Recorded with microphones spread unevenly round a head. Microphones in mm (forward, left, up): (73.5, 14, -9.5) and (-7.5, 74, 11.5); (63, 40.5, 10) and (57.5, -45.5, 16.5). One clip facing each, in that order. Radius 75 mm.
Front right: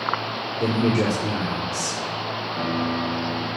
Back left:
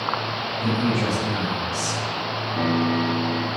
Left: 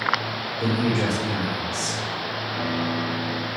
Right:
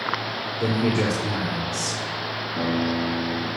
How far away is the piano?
About 1.6 m.